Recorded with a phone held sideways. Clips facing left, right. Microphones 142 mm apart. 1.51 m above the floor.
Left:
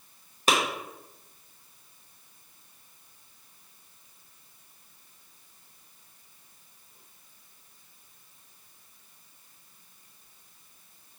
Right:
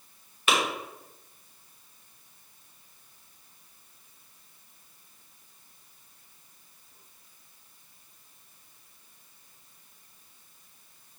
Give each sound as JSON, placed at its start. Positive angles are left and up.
{"t": 0.5, "sound": "a clap", "side_deg": 35, "distance_m": 1.0}